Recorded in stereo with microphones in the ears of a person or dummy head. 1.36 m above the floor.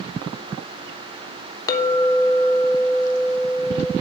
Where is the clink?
20° left (ahead or behind), 1.0 m.